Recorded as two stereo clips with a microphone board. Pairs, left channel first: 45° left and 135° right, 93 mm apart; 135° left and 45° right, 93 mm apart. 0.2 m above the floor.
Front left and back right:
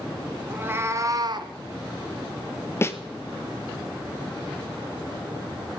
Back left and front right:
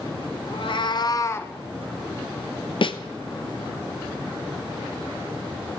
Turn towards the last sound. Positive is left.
turn(degrees=110)